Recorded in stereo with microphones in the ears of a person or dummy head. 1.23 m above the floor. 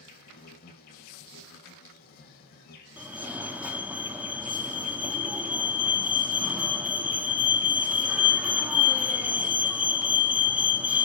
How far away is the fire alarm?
About 0.9 m.